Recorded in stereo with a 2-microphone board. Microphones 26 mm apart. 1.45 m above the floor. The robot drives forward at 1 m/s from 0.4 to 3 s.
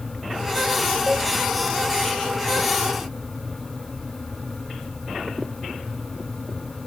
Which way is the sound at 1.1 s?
65° left (ahead or behind).